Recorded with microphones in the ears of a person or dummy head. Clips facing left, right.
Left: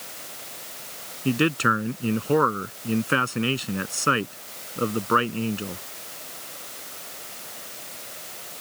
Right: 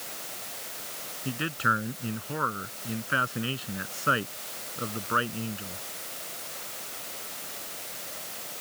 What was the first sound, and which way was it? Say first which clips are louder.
A man speaking: left 10 dB; 55° left (ahead or behind).